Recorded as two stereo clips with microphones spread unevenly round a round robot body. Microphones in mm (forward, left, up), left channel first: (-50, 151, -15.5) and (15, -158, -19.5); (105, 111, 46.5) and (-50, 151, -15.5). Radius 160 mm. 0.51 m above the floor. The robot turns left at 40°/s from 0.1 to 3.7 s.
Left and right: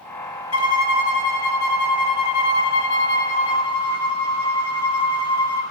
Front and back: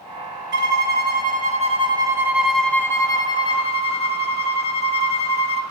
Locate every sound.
0.5 s a violin: 145° left, 0.6 m; by 5.6 s 20° left, 0.6 m